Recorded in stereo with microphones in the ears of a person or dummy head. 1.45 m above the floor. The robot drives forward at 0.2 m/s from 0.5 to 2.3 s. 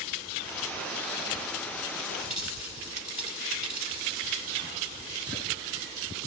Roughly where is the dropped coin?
Left.